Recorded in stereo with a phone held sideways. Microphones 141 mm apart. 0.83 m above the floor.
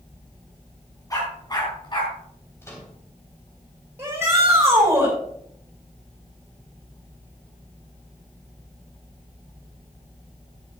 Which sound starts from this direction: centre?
A microwave, at 2.6 s.